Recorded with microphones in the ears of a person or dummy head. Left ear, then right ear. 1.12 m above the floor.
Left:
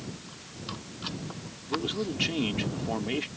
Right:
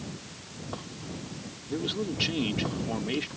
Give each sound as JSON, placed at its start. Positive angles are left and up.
{"t": 1.6, "sound": "a man speaking", "side_deg": 25}